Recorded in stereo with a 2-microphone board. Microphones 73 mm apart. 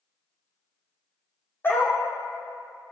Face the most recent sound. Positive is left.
turn(degrees=30)  # may be behind; listen again after turning